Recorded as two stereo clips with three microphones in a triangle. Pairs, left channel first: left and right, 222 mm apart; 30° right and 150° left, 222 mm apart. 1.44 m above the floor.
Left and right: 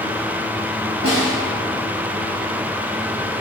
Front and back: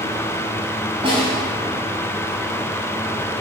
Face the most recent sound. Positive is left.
turn(degrees=85)